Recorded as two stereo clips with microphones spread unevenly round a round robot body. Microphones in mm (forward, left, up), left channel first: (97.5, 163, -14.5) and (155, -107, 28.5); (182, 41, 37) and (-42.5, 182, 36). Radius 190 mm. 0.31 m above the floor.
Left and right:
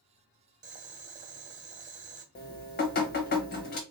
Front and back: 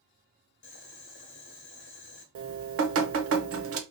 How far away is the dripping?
About 0.8 m.